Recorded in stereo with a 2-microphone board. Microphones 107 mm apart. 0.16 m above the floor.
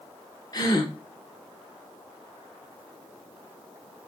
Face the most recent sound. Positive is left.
turn(degrees=35)  # may be behind; listen again after turning